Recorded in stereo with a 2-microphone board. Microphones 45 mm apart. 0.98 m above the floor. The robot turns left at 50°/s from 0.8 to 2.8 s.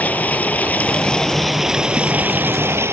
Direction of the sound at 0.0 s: 35° left.